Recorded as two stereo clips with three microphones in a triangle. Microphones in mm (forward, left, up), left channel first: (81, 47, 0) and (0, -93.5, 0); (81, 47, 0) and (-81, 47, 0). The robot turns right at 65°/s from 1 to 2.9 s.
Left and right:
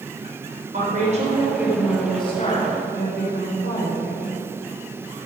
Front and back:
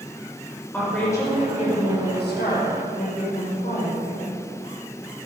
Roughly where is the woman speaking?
Right.